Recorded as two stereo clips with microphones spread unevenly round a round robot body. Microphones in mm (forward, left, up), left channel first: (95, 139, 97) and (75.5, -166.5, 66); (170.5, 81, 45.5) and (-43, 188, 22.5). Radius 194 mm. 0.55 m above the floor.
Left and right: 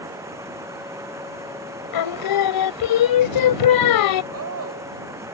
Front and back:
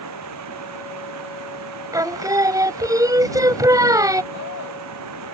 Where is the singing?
75° left.